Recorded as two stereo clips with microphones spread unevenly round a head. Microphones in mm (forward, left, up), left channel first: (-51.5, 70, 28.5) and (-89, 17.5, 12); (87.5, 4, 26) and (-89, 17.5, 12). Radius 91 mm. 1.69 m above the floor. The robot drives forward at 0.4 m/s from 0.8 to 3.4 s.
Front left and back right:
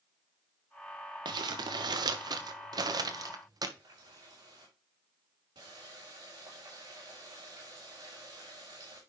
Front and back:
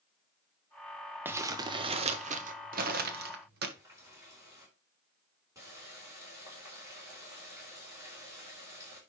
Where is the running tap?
110° right, 4.5 m.